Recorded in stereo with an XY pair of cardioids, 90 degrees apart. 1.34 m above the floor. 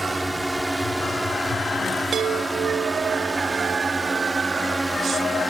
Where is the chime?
65° right.